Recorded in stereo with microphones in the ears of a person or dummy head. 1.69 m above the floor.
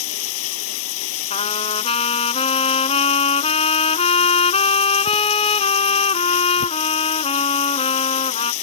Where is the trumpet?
30° left (ahead or behind).